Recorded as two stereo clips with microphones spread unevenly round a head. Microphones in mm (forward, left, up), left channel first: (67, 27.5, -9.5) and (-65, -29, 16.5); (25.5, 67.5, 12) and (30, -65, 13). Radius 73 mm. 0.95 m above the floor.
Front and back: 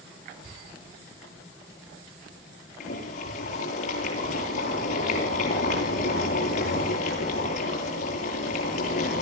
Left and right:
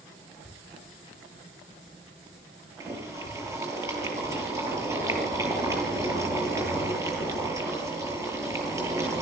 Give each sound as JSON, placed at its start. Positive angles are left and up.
{"t": 2.8, "sound": "boiling", "azimuth_deg": -20, "distance_m": 9.5}